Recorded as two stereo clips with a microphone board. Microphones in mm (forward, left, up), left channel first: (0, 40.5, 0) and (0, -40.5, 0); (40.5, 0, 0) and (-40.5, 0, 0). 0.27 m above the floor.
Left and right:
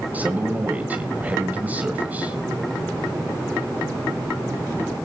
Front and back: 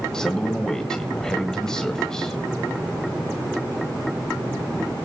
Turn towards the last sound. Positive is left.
turn(degrees=-65)